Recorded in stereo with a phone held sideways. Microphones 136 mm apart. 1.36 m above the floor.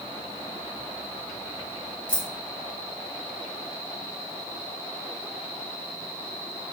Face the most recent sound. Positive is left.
turn(degrees=35)  # may be behind; listen again after turning